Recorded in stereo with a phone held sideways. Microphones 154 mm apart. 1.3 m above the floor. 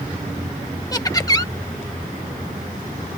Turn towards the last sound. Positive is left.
turn(degrees=25)  # may be behind; listen again after turning